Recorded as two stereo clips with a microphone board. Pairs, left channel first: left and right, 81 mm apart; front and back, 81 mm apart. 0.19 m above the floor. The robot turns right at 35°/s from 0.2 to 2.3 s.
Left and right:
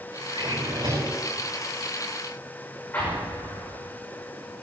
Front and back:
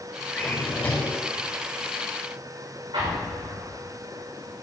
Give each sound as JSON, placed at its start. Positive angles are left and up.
{"t": 0.3, "sound": "a drawer", "azimuth_deg": -80, "distance_m": 6.5}
{"t": 2.9, "sound": "an explosion", "azimuth_deg": 155, "distance_m": 7.0}